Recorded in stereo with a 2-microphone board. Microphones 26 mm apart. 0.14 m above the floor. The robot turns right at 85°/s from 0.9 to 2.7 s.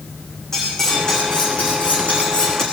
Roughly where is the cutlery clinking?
Ahead.